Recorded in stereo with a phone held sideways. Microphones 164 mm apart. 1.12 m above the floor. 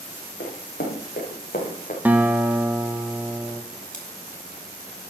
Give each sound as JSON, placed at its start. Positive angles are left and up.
{"t": 0.4, "sound": "running footsteps", "side_deg": 65, "distance_m": 4.5}
{"t": 2.0, "sound": "a guitar", "side_deg": -10, "distance_m": 0.9}
{"t": 3.9, "sound": "scissors", "side_deg": 45, "distance_m": 2.5}